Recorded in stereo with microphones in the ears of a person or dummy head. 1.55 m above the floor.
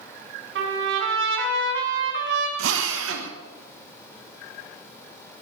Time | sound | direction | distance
0.6 | a trumpet | 65° right (ahead or behind) | 3.5 m
2.6 | a drill | 80° right | 1.6 m